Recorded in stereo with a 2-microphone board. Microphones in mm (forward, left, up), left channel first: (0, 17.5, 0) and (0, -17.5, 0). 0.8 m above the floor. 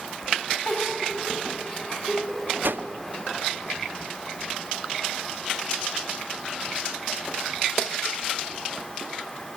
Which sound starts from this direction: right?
A whoosh, at 2.6 s.